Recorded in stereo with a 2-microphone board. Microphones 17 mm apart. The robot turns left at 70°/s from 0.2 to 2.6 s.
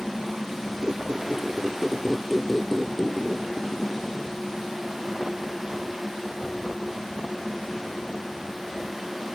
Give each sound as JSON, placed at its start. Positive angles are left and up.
{"t": 0.8, "sound": "a squeak", "azimuth_deg": -70, "distance_m": 0.8}